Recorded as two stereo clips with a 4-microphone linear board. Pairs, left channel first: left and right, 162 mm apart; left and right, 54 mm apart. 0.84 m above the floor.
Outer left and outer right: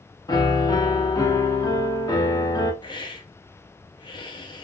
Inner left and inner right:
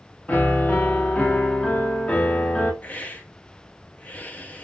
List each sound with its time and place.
0.3 s a piano: 25° left (ahead or behind), 0.7 m
2.8 s a hiss: 30° left (ahead or behind), 0.6 m